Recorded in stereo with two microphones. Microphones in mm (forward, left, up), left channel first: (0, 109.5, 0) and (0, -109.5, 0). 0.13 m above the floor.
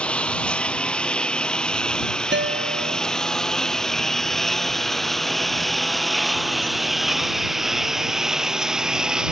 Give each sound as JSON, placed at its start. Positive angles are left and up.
{"t": 0.0, "sound": "a lawn mower", "side_deg": 5}
{"t": 2.3, "sound": "a guitar", "side_deg": -60}